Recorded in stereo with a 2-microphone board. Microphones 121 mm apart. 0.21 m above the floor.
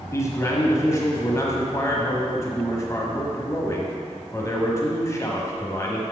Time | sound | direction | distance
0.1 | a man speaking | 25° left (ahead or behind) | 1.2 m